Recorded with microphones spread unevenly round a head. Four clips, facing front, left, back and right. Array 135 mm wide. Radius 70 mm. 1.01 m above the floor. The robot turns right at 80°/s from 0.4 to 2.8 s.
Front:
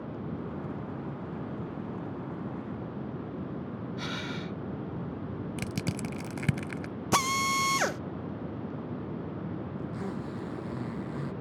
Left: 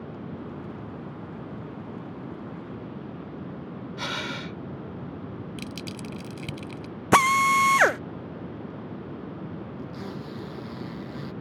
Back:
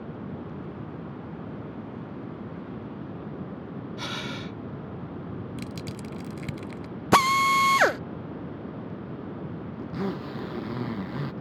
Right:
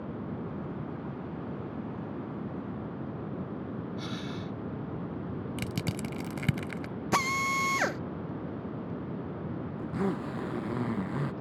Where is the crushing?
40° right.